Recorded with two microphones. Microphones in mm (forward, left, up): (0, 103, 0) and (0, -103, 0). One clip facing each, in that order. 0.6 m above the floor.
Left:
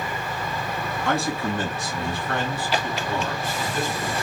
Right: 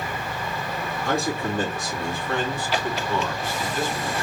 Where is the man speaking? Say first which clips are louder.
Even; 75° left (ahead or behind), 3 m; by 4.1 s 45° left (ahead or behind), 3.5 m.